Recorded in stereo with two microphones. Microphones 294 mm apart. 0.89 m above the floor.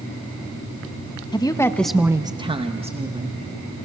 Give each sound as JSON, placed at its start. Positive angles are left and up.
{"t": 1.3, "sound": "a woman speaking", "side_deg": 15, "distance_m": 1.2}